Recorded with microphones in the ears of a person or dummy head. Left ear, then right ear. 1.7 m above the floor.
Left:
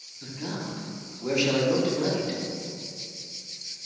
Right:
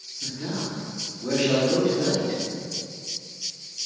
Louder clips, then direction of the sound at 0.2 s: Right 4 dB; 30° left (ahead or behind).